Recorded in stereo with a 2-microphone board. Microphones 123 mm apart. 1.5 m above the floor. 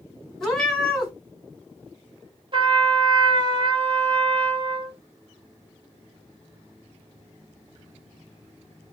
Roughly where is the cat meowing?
Centre.